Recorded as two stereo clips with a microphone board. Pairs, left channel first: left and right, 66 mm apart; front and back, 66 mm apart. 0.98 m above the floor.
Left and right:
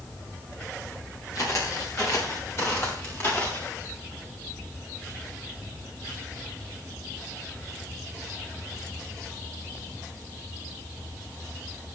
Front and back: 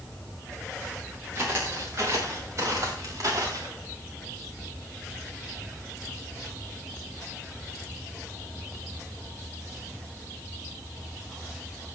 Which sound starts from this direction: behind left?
Footsteps, at 1.4 s.